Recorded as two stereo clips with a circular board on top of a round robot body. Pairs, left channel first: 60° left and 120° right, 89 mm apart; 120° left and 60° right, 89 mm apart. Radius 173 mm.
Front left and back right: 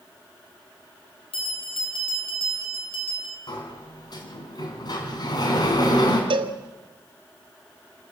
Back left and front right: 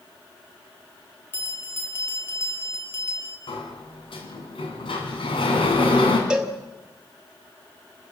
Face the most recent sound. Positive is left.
turn(degrees=-140)